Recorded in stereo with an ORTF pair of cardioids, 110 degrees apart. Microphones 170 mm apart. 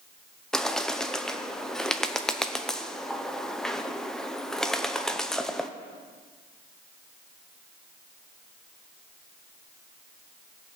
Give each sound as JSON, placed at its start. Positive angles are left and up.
{"t": 0.5, "sound": "a bird", "azimuth_deg": 5, "distance_m": 0.8}